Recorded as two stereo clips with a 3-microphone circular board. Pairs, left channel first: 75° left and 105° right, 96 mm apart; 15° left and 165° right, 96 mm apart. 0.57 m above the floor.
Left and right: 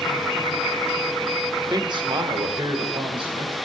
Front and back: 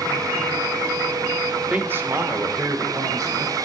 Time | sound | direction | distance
1.7 | a man speaking | 95° right | 0.9 m